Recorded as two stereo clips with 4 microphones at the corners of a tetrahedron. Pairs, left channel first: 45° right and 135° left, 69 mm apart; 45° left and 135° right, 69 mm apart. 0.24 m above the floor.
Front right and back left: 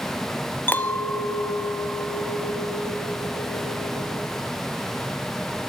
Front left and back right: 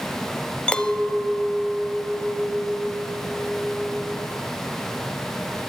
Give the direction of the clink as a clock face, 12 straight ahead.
1 o'clock.